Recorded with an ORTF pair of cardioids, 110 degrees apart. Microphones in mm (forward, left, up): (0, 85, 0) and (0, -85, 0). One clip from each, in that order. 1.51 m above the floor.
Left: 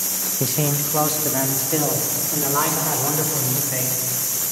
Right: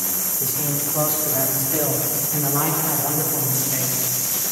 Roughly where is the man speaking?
Ahead left.